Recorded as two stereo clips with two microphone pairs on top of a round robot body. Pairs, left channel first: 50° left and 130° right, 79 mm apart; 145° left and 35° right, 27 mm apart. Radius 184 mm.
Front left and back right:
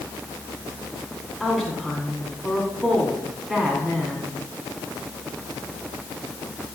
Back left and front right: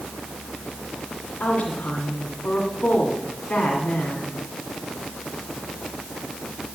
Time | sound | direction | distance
1.4 | a woman speaking | 135° left | 2.5 m